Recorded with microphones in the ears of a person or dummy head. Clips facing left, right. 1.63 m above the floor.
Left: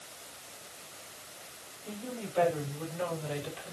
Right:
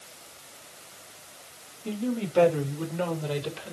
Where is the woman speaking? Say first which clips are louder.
Right 10 dB; 70° right (ahead or behind), 6 m; by 3.7 s 65° right (ahead or behind), 7 m.